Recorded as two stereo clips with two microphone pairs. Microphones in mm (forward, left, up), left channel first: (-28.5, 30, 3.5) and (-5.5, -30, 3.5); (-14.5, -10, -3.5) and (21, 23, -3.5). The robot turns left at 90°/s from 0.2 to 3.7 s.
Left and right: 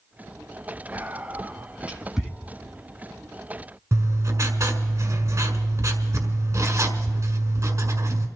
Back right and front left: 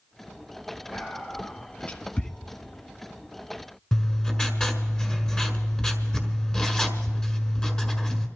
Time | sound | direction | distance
0.9 | whispering | 30° right | 1.1 m
3.9 | writing | 70° right | 1.5 m